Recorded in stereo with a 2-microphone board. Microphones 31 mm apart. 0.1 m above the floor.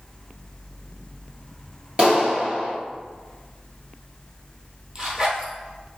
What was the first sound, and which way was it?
A clap, 35° right (ahead or behind).